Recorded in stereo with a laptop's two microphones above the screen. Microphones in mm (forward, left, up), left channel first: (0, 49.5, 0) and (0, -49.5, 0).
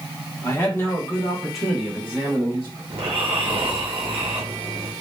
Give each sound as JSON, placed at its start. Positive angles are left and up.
{"t": 0.4, "sound": "a man speaking", "side_deg": 30, "distance_m": 1.1}
{"t": 2.9, "sound": "snoring", "side_deg": -75, "distance_m": 0.7}